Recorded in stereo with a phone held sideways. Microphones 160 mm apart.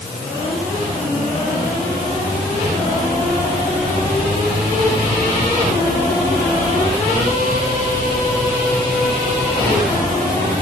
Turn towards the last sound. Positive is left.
No sound to turn to.